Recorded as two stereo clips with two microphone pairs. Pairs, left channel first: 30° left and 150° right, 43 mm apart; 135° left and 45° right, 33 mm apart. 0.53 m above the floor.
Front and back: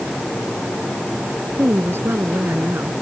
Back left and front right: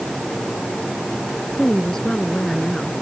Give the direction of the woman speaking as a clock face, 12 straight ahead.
5 o'clock.